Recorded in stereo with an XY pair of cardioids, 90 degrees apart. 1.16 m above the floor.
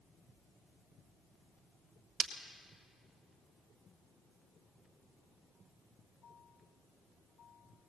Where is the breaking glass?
65° right, 1.7 m.